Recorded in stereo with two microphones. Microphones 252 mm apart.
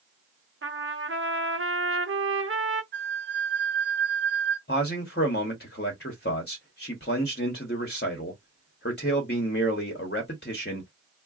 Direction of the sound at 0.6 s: 55° right (ahead or behind).